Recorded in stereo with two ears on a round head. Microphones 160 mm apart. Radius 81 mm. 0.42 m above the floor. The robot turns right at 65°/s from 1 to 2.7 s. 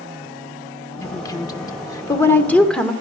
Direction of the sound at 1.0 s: 20° left (ahead or behind).